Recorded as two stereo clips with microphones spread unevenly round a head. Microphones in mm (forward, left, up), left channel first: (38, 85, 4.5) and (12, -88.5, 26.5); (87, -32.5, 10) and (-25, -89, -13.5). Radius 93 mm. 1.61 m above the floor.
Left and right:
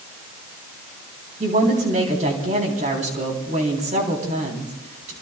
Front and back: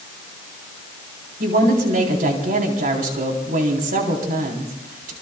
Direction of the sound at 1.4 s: 155° right.